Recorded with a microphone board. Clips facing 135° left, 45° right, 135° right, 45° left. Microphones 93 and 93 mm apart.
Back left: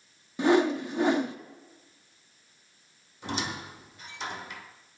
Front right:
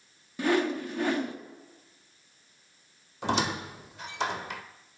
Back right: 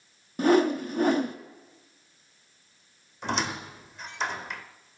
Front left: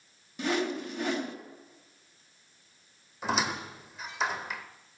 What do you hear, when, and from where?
0.4 s a whoosh: 165° right, 0.9 m
3.2 s a squeak: 40° right, 1.2 m